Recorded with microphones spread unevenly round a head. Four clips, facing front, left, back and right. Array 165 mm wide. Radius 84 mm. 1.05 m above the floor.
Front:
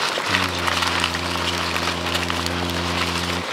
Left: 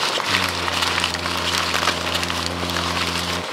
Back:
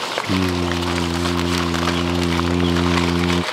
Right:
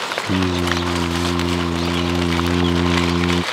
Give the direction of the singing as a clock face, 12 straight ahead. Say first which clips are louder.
Right 4 dB, back 3 dB; 4 o'clock.